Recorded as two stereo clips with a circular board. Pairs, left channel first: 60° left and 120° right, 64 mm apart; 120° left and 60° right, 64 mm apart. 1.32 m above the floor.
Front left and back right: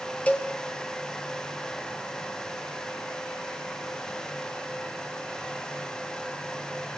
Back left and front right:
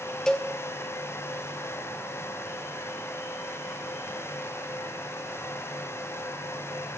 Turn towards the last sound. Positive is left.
turn(degrees=60)